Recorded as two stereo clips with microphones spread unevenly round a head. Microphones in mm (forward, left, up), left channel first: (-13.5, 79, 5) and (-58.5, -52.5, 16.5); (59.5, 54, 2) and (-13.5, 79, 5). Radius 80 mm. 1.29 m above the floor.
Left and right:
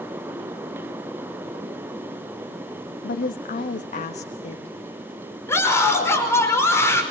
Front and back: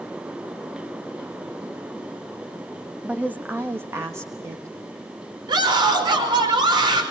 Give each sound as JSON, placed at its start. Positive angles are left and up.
{"t": 3.0, "sound": "a woman speaking", "azimuth_deg": 85, "distance_m": 1.0}
{"t": 5.5, "sound": "a scream", "azimuth_deg": 145, "distance_m": 5.5}